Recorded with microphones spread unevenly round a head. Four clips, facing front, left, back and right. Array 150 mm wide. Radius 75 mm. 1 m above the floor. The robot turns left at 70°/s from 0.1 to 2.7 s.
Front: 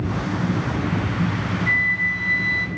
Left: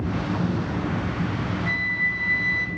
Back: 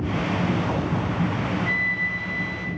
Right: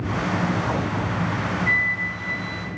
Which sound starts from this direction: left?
A flute, at 1.7 s.